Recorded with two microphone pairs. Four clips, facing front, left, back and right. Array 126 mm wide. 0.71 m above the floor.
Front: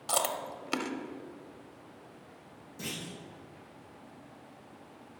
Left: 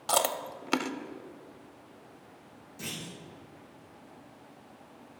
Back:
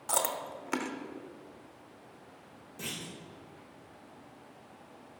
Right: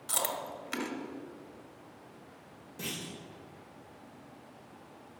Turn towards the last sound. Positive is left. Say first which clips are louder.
# right 1 dB, front 1 dB
turn(degrees=-130)